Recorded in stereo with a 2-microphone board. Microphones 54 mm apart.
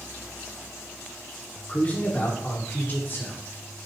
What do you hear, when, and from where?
1.7 s a man speaking: 25° left (ahead or behind), 1.4 m; by 3.4 s 50° left (ahead or behind), 2.0 m